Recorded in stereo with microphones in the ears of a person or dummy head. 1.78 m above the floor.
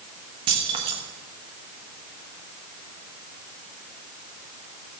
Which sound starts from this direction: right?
Keys jangling, at 0.5 s.